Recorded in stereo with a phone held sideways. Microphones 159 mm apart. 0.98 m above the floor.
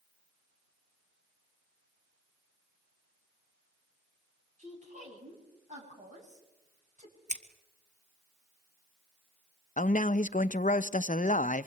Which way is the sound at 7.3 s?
50° right (ahead or behind).